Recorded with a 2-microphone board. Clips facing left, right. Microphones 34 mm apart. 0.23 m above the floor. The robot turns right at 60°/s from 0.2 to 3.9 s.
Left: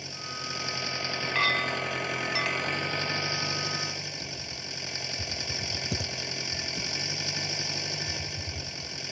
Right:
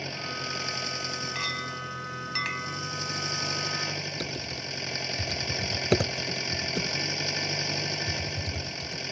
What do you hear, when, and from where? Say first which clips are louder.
0.0 s an engine running: right 4 dB; 30° right; by 9.1 s 170° right
1.4 s a clink: left 10 dB; 115° left; by 2.8 s 155° right
4.2 s typing on a keyboard: right 4 dB; 60° right (ahead or behind)